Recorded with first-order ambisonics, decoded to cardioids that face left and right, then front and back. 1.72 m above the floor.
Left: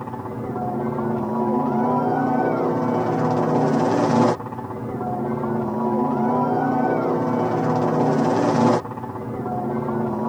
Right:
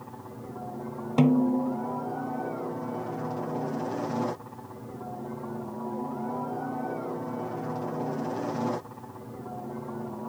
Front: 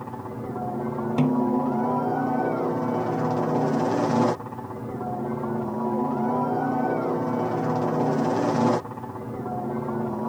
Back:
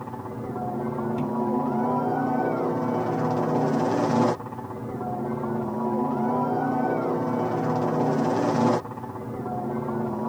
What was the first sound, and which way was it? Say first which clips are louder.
A helicopter: left 13 dB, even; 90° left.